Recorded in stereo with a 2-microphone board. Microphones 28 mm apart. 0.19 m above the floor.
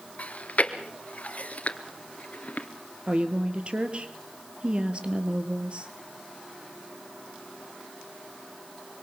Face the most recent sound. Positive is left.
turn(degrees=-40)  # may be behind; listen again after turning